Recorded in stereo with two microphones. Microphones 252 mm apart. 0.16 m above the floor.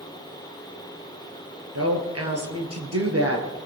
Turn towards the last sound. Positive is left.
turn(degrees=-65)  # may be behind; listen again after turning